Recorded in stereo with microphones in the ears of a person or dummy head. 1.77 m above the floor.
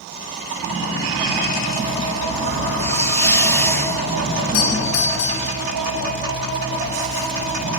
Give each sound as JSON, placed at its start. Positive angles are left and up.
{"t": 2.8, "sound": "a hiss", "side_deg": 10, "distance_m": 0.8}
{"t": 4.5, "sound": "a doorbell", "side_deg": 75, "distance_m": 1.3}